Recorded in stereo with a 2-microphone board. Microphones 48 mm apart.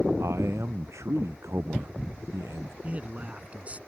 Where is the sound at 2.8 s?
30° right (ahead or behind).